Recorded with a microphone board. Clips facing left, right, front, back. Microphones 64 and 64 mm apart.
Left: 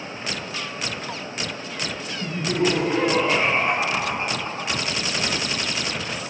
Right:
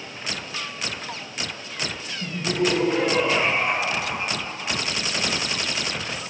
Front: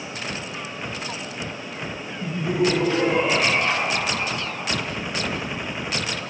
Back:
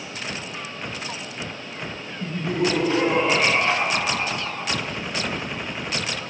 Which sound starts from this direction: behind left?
Laughter, at 2.2 s.